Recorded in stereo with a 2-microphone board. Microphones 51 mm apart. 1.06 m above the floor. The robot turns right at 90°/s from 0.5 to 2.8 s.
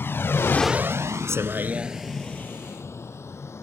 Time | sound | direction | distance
0.0 | a vehicle | 55° left (ahead or behind) | ?